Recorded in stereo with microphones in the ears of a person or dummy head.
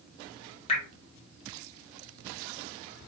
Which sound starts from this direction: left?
Dripping, at 0.7 s.